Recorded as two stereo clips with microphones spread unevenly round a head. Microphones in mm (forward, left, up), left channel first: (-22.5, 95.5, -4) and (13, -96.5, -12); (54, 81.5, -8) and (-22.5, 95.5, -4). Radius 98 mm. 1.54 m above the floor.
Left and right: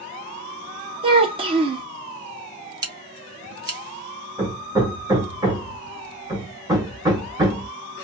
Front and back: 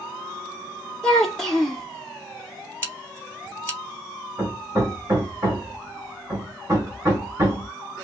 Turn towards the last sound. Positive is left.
turn(degrees=-145)